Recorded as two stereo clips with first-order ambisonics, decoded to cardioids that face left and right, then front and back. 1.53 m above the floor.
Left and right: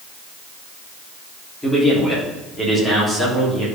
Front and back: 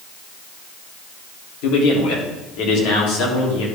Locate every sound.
1.6 s a man speaking: 15° left, 3.5 m